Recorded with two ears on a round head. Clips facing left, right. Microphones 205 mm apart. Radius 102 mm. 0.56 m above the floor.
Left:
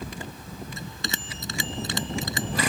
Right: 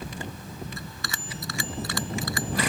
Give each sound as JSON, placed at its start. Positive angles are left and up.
{"t": 0.8, "sound": "a bell", "side_deg": 25}